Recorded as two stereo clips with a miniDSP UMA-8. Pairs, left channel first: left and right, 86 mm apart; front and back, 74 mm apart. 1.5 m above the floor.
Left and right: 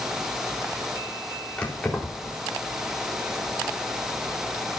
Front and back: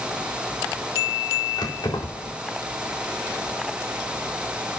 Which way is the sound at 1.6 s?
10° left.